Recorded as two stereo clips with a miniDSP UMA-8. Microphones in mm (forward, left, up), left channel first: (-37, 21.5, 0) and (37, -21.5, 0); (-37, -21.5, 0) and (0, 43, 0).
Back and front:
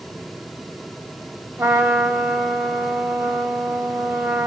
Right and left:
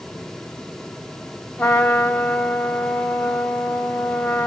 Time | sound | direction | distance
1.6 | a trumpet | 60° right | 1.4 m